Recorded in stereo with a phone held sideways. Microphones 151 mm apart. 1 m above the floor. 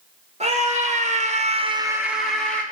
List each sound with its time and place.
0.4 s a scream: 45° right (ahead or behind), 2 m; by 2.6 s 10° left (ahead or behind), 1.6 m